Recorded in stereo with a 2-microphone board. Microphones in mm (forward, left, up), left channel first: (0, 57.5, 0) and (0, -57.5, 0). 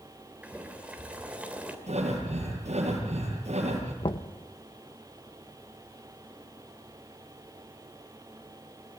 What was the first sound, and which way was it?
Boiling, 10° right (ahead or behind).